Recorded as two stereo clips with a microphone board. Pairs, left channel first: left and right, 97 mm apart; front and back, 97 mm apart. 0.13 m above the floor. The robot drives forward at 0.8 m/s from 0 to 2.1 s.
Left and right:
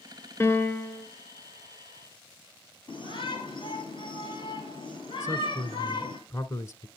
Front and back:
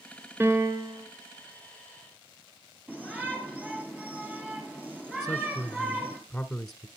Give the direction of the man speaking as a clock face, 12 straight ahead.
9 o'clock.